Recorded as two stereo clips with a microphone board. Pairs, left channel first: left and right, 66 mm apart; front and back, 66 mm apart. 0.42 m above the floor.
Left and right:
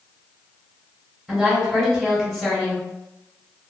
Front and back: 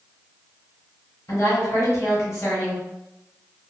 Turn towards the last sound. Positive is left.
turn(degrees=0)